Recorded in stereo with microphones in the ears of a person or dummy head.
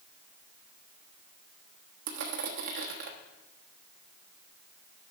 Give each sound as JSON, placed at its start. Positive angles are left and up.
{"t": 2.1, "sound": "crushing", "side_deg": -55, "distance_m": 1.2}